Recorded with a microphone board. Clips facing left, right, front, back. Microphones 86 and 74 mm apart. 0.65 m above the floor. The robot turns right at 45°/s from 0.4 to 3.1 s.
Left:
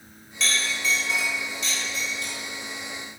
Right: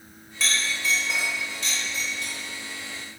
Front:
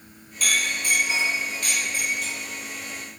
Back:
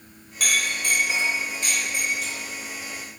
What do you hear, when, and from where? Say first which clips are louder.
0.4 s a clink: even, even; 175° right, 1.5 m; by 3.2 s 50° right, 1.5 m